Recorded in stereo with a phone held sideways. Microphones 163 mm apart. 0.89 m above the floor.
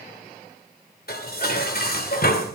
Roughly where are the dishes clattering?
Left.